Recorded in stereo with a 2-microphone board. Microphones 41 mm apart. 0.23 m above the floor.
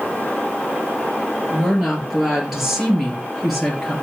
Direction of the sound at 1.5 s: 15° right (ahead or behind).